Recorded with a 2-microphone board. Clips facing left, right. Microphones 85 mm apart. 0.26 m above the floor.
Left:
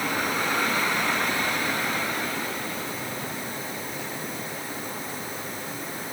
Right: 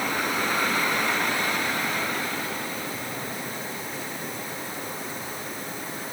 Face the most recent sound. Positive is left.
No sound to turn to.